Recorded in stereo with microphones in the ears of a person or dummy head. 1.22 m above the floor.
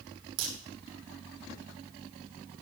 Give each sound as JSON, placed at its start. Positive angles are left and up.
{"t": 0.4, "sound": "a crack", "side_deg": -75, "distance_m": 5.5}